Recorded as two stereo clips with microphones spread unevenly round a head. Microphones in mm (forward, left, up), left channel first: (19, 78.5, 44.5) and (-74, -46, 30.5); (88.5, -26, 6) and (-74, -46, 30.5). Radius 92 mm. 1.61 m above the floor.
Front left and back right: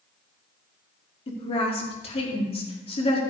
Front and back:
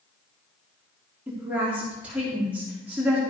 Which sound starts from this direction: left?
A woman speaking, at 1.3 s.